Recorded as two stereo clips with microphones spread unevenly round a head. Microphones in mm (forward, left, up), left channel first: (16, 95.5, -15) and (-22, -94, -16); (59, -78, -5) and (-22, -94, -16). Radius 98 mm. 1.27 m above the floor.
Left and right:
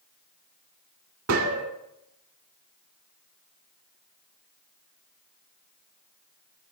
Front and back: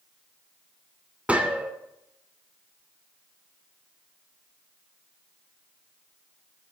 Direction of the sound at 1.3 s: 90° right.